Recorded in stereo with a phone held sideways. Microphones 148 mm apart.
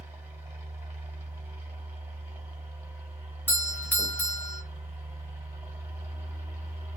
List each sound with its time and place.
0.0 s a fan: 20° right (ahead or behind), 1.4 m
3.5 s a doorbell: 10° left (ahead or behind), 0.8 m